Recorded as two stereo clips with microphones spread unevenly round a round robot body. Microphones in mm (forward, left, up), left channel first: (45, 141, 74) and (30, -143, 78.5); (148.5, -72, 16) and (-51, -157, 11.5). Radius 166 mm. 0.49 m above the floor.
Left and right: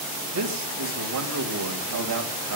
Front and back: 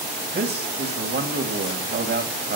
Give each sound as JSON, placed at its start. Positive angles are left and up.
{"t": 0.3, "sound": "a man speaking", "azimuth_deg": -120, "distance_m": 2.5}